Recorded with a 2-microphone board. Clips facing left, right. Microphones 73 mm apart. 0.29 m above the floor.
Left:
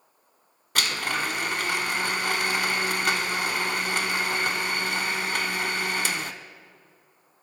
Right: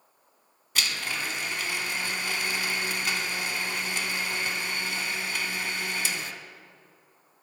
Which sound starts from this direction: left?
A blender, at 0.8 s.